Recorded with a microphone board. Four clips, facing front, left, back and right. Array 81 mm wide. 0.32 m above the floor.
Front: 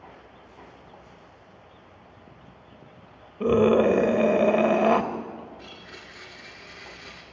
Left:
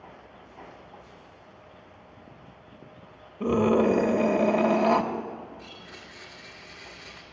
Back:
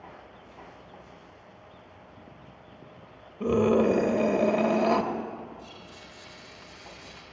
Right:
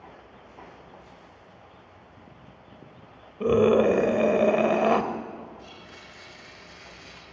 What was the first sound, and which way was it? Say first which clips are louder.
A scream: right 3 dB, front 3 dB; 35° right.